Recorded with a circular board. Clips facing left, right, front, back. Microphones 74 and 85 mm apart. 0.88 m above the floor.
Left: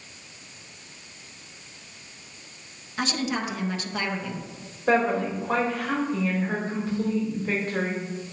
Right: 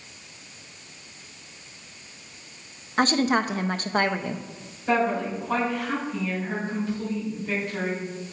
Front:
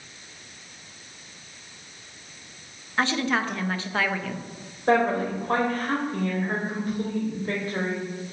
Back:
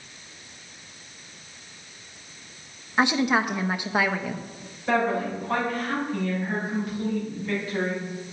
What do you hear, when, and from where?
3.0 s a woman speaking: 110° right, 0.6 m
4.9 s a woman speaking: 45° left, 4 m